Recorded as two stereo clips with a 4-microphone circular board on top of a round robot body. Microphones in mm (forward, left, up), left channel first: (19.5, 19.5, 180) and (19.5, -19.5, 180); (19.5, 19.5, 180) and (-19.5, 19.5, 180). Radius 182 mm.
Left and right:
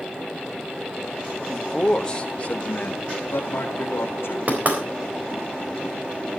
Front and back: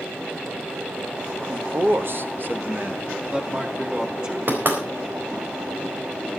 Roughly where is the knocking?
Behind right.